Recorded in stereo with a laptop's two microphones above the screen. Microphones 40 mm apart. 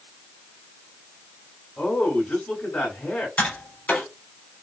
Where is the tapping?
40° left (ahead or behind), 4 m.